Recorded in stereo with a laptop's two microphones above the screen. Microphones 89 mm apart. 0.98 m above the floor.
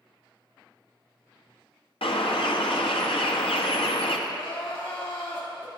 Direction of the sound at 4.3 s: 65° left (ahead or behind).